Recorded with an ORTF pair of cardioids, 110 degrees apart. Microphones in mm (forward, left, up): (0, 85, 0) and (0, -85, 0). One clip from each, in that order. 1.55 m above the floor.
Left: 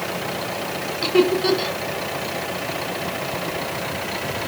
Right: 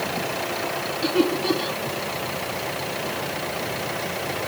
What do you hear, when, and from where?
1.0 s laughter: 60° left, 1.7 m